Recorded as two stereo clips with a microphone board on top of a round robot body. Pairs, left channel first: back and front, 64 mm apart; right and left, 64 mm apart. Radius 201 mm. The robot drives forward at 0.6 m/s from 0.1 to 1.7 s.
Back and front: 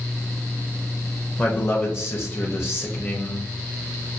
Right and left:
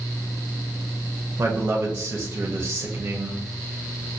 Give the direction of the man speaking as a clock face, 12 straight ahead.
8 o'clock.